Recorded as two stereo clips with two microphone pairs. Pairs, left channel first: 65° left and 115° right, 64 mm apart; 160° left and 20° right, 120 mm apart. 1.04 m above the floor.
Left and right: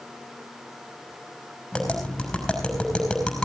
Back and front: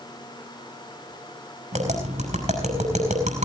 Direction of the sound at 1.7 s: 15° right.